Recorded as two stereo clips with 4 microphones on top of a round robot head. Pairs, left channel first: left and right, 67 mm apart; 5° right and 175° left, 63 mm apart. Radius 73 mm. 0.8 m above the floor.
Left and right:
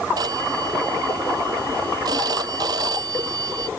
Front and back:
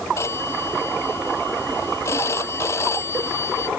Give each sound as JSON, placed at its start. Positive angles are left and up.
{"t": 0.2, "sound": "a phone ringing", "azimuth_deg": -55}